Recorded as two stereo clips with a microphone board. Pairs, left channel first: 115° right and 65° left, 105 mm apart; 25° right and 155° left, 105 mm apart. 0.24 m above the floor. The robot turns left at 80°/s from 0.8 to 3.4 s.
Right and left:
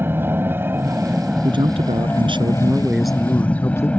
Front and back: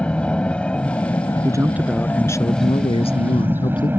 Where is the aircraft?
40° left; by 4.0 s 170° right.